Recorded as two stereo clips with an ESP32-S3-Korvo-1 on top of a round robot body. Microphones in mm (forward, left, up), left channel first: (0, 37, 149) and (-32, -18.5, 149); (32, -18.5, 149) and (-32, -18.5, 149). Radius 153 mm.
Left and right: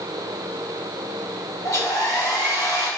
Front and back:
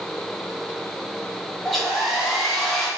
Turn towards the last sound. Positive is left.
turn(degrees=85)